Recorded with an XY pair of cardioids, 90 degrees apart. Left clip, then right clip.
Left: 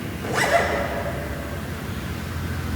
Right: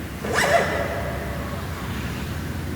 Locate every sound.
0.2 s a zipper: 45° right, 5.5 m